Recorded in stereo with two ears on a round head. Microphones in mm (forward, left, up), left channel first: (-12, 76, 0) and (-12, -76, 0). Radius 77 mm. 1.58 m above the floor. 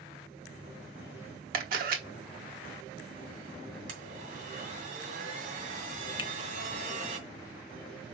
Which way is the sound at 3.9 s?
50° right (ahead or behind).